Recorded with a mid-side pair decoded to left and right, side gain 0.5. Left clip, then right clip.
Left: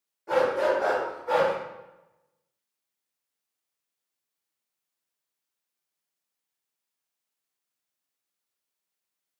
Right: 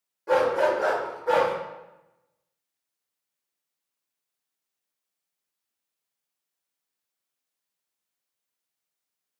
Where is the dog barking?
50° right, 1.9 m; by 1.5 s 75° right, 1.4 m.